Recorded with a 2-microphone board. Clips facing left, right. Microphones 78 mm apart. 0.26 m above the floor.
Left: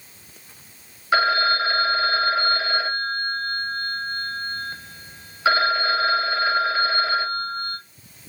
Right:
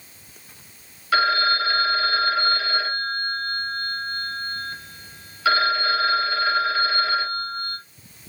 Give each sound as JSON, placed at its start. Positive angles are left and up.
{"t": 1.1, "sound": "a phone ringing", "side_deg": 25, "distance_m": 0.5}